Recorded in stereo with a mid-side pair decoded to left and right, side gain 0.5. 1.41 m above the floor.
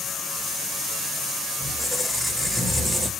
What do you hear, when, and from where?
1.6 s a squeak: 5° left, 1.9 m